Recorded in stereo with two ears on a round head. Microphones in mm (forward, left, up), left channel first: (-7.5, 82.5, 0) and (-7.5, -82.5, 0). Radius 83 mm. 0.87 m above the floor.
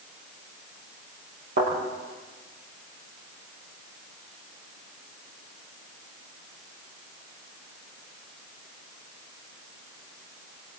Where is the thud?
70° right (ahead or behind), 9.5 m.